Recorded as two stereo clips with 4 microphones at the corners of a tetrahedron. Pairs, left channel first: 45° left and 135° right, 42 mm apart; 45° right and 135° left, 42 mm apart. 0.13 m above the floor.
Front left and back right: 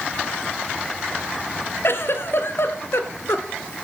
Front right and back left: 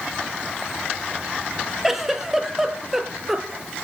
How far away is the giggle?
About 1.4 m.